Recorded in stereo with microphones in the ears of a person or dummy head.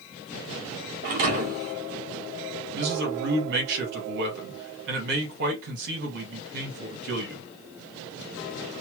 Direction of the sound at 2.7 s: 60° right (ahead or behind).